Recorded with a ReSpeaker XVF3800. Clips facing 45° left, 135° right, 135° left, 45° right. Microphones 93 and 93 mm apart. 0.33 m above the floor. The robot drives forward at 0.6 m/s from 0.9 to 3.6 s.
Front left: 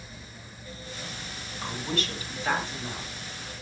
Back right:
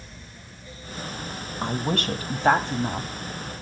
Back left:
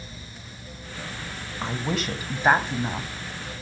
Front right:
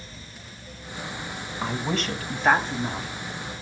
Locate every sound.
1.6 s a woman speaking: 130° right, 1.4 m; by 3.1 s 155° right, 2.0 m